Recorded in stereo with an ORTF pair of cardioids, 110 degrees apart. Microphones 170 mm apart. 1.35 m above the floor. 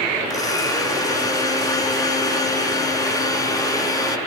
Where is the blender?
20° left, 3.5 m.